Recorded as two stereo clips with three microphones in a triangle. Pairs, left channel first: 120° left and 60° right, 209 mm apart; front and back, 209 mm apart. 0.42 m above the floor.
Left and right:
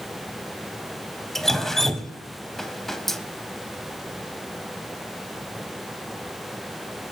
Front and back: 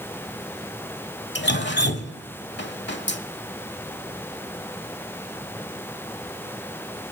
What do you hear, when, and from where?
1.4 s dripping: 30° left, 0.7 m